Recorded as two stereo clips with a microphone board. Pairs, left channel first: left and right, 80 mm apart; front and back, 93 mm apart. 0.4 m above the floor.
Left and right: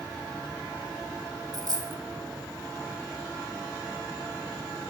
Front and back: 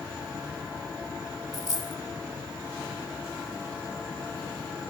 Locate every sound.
1.5 s a dropped coin: 50° right, 0.8 m